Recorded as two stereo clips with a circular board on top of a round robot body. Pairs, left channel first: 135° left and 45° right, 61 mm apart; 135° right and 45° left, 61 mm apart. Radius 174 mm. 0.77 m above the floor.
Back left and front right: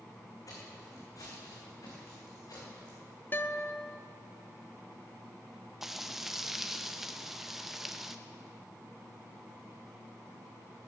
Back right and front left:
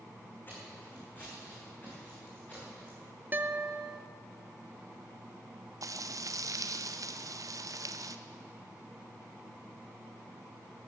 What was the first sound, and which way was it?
Footsteps, 165° left.